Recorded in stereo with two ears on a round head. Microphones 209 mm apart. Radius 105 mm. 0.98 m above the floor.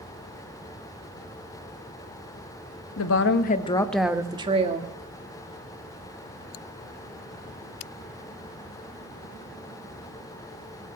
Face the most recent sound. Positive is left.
turn(degrees=-35)  # may be behind; listen again after turning